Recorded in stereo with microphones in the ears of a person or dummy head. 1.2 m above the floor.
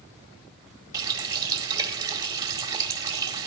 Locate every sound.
0.9 s a running tap: 20° right (ahead or behind), 1.8 m